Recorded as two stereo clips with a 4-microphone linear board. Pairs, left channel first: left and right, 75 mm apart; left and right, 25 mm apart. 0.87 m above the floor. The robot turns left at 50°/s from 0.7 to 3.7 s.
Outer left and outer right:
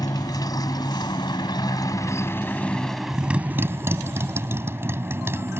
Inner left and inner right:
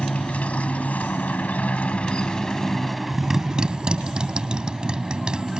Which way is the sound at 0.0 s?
115° left.